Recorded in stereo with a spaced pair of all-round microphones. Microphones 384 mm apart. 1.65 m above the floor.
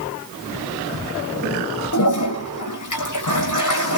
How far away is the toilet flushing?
About 6.5 m.